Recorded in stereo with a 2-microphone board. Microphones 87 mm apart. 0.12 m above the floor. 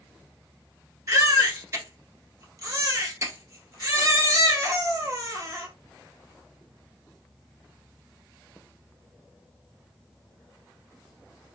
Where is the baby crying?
40° right (ahead or behind), 1.0 m.